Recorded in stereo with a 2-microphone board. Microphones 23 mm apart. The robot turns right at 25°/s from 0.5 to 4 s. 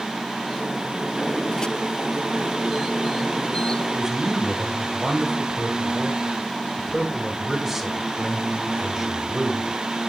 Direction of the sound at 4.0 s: 15° right (ahead or behind).